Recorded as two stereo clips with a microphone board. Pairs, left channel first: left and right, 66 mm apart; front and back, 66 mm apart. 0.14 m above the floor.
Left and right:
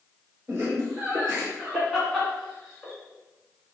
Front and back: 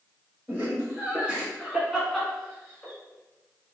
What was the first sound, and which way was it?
Laughter, 140° right.